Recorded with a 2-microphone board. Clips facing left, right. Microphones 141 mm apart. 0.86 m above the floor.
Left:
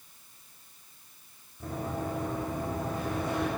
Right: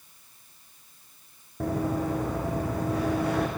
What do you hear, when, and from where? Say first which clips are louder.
1.6 s running footsteps: right 7 dB; 75° right (ahead or behind), 3.5 m; by 3.5 s 70° right (ahead or behind), 4 m